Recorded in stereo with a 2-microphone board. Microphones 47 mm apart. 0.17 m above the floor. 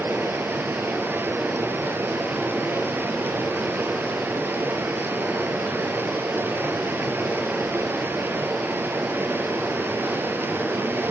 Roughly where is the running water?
Right.